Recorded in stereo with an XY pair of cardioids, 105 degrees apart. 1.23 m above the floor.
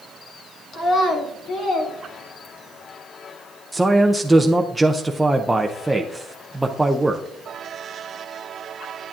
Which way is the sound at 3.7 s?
5° right.